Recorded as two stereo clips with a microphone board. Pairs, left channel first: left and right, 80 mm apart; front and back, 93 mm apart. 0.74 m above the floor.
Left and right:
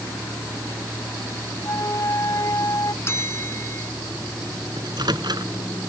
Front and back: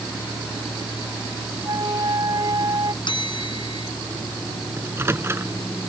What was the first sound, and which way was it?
A flute, 135° left.